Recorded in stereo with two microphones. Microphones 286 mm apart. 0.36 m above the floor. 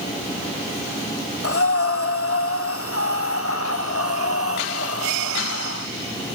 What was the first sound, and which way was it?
Breathing, 50° left (ahead or behind).